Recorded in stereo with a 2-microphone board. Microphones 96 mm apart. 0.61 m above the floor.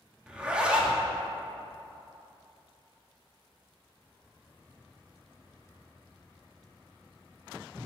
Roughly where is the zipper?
Centre.